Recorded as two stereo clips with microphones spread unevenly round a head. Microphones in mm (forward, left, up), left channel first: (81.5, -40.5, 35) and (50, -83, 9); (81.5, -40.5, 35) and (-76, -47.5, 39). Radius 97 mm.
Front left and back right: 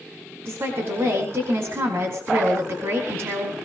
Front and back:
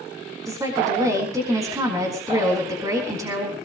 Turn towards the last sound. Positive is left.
turn(degrees=-110)